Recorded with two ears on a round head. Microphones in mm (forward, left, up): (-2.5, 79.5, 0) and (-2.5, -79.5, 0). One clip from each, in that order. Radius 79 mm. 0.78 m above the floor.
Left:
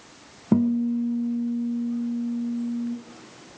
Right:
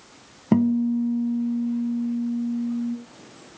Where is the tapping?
I don't hear tapping.